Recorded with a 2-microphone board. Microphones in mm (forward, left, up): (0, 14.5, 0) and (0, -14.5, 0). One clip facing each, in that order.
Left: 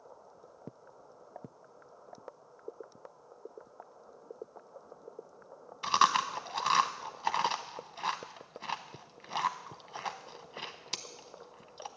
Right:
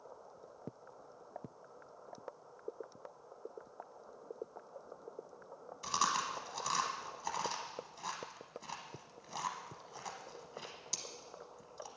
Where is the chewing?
45° left (ahead or behind), 0.7 m.